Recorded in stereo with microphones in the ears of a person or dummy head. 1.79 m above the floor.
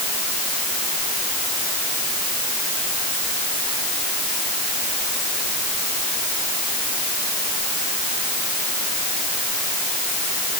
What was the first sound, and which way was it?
Only background noise.